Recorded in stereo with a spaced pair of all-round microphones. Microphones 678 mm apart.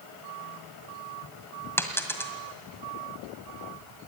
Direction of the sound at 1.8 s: 5° left (ahead or behind).